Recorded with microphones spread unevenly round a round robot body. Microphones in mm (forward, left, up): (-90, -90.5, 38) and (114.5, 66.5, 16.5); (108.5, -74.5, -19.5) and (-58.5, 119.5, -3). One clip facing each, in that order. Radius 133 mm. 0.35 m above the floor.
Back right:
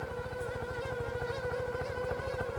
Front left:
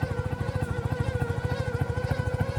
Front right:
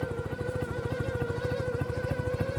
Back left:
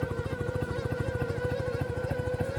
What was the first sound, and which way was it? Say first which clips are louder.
A helicopter: front left 5 dB, even; 45° left.